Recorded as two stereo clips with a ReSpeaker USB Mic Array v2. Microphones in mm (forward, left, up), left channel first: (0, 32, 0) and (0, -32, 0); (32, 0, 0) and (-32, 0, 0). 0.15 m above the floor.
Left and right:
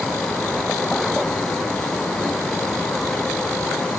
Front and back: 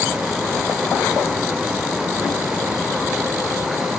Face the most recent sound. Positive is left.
No sound to turn to.